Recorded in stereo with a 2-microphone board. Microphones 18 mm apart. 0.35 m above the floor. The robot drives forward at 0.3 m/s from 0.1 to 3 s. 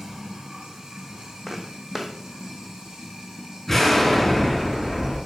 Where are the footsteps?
15° right (ahead or behind), 1.0 m; by 2.1 s 20° right (ahead or behind), 0.8 m.